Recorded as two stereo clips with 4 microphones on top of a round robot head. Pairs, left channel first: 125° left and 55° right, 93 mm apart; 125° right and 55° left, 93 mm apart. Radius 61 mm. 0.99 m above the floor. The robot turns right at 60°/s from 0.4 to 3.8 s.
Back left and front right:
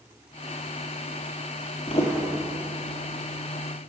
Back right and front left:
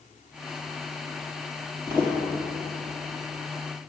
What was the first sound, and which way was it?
Footsteps, 110° left.